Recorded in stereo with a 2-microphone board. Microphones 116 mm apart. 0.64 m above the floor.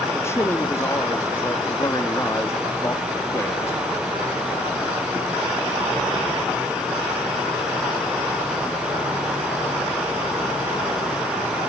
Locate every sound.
0.1 s a man speaking: 20° left (ahead or behind), 1.4 m